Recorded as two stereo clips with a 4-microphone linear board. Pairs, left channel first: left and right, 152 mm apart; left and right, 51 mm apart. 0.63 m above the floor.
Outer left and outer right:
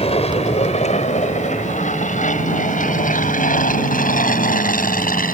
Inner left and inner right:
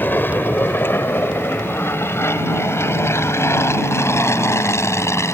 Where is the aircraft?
40° left (ahead or behind); by 5.3 s 65° left (ahead or behind).